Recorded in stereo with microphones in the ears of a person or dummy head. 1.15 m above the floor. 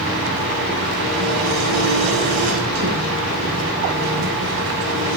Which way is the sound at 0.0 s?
80° right.